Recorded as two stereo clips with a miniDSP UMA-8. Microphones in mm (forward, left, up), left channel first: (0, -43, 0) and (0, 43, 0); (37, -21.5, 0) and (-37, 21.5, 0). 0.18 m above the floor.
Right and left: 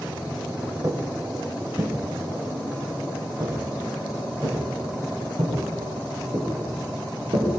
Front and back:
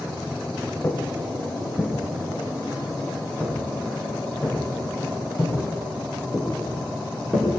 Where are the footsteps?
35° left, 2 m; by 7.5 s 65° left, 6 m.